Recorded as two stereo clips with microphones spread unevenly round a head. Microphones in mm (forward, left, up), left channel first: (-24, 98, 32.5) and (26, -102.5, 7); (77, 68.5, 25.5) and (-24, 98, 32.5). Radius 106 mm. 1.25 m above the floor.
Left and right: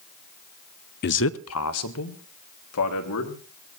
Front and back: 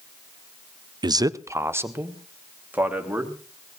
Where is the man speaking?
130° left, 0.5 m; by 3.8 s 85° left, 4.5 m.